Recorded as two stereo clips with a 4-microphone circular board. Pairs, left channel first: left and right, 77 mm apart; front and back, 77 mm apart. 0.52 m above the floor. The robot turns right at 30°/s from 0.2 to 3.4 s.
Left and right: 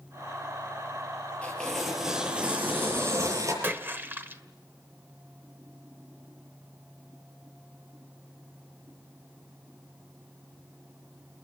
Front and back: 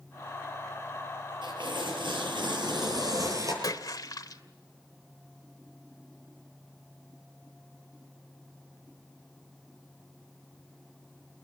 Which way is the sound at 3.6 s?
30° right.